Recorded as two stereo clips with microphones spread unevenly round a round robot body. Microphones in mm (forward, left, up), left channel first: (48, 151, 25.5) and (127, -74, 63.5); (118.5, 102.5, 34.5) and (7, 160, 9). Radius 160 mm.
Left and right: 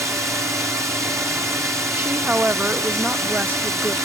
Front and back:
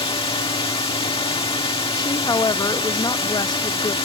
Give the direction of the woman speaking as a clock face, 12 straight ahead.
11 o'clock.